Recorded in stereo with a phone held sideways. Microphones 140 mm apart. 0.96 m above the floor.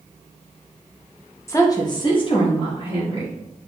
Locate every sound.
1.5 s a woman speaking: 20° left (ahead or behind), 0.8 m; by 3.3 s 40° left (ahead or behind), 1.7 m